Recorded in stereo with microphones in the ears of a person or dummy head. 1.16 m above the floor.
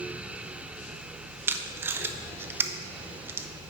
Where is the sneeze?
No sneeze in this recording.